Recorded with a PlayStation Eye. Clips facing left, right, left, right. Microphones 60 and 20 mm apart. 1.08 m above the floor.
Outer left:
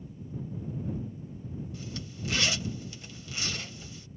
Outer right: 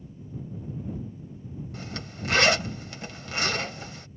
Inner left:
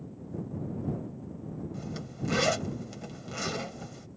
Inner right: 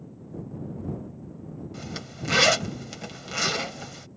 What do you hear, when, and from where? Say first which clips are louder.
1.7 s a zipper: outer right 3 dB, inner right 2 dB; 60° right (ahead or behind)